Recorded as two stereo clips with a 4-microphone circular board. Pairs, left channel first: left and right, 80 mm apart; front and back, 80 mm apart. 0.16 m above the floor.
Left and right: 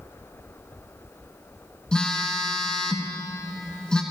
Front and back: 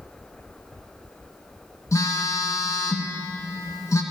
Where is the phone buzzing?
15° left, 1.2 m.